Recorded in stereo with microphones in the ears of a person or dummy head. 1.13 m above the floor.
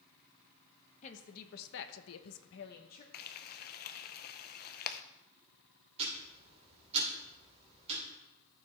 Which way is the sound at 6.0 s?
35° right (ahead or behind).